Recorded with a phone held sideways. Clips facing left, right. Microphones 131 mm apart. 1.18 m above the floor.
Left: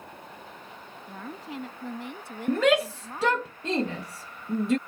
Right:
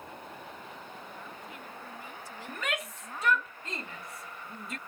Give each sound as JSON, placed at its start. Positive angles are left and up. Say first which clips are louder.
{"t": 1.1, "sound": "a woman speaking", "louder": "left 6 dB", "side_deg": 80}
{"t": 2.5, "sound": "a shout", "louder": "left 15 dB", "side_deg": 80}